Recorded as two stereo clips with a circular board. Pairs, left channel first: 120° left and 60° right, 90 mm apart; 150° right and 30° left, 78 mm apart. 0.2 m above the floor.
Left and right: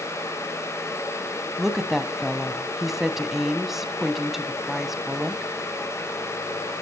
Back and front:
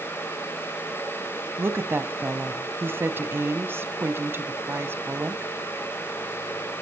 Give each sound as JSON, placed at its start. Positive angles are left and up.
{"t": 1.6, "sound": "a woman speaking", "azimuth_deg": 25, "distance_m": 1.3}